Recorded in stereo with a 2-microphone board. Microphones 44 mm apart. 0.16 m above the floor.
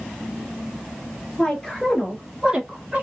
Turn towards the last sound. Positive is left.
turn(degrees=-30)  # may be behind; listen again after turning